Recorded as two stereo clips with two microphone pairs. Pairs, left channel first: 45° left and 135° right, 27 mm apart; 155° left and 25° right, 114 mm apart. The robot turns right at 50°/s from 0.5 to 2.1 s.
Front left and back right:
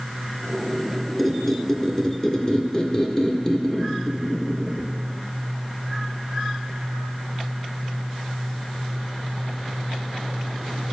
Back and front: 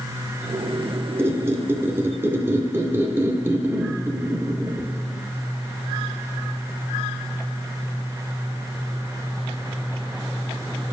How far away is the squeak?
About 0.9 m.